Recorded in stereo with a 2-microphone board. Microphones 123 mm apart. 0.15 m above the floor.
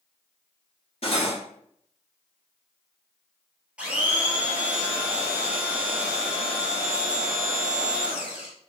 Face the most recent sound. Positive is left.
turn(degrees=-10)  # may be behind; listen again after turning